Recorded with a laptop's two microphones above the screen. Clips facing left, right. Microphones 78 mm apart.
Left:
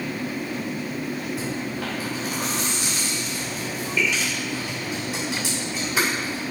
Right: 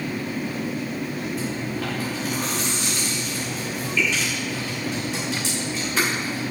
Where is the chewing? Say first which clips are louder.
Right 1 dB; 5° left (ahead or behind), 3 m.